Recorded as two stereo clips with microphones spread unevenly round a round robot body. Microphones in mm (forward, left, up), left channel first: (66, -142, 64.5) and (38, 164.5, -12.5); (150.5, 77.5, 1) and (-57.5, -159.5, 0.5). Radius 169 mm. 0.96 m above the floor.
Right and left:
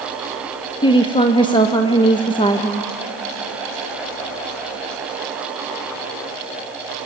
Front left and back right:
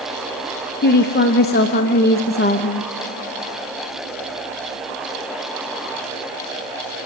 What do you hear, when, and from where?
0.8 s a woman speaking: straight ahead, 0.9 m